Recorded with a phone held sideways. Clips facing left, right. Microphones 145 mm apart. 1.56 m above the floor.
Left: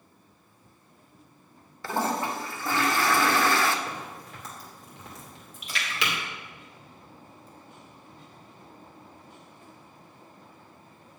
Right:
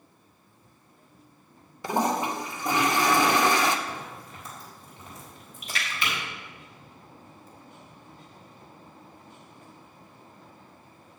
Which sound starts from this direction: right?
A splash, at 5.6 s.